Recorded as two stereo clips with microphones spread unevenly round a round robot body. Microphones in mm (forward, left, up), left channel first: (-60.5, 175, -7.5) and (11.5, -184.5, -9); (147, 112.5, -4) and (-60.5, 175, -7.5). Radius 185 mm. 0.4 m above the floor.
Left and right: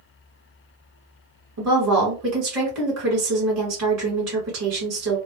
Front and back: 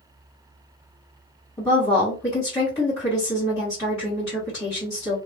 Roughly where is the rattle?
No rattle in this recording.